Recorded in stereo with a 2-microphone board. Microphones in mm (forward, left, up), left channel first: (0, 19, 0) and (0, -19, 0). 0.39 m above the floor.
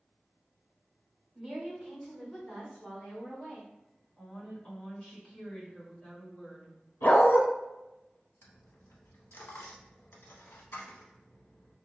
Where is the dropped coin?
75° left (ahead or behind), 0.6 m.